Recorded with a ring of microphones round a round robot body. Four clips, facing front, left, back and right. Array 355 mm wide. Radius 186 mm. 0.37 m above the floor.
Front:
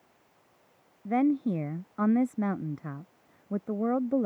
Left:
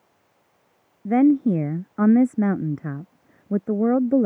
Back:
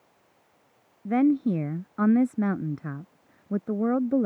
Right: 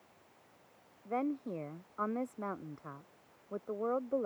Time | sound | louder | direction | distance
1.1 | a woman speaking | left 19 dB, back 4 dB | 100° left | ?